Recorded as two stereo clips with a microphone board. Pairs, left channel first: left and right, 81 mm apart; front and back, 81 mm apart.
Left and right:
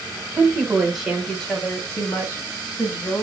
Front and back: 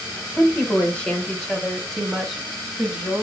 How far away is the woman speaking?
About 1.1 m.